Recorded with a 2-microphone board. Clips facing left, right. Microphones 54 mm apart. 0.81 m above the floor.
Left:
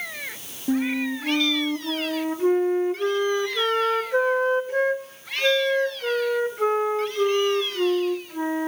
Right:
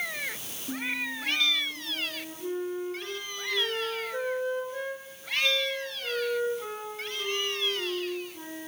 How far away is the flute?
About 1.9 m.